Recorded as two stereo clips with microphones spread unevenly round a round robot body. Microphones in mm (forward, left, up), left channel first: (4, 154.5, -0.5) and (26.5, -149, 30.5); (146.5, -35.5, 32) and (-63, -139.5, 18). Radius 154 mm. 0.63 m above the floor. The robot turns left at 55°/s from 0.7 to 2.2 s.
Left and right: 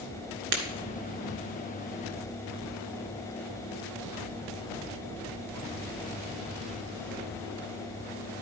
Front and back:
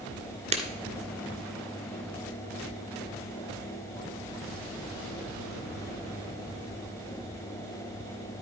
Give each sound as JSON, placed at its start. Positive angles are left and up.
{"t": 0.5, "sound": "breaking glass", "azimuth_deg": -90, "distance_m": 2.0}